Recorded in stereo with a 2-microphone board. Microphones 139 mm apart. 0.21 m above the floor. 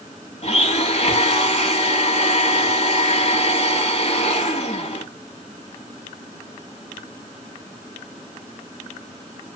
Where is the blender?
50° left (ahead or behind), 0.9 m.